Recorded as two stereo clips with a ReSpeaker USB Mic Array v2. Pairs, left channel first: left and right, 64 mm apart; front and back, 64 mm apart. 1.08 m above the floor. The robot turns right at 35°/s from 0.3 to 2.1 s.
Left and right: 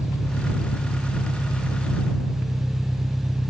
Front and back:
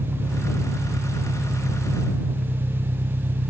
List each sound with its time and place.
0.0 s an engine running: 135° left; by 3.5 s 160° right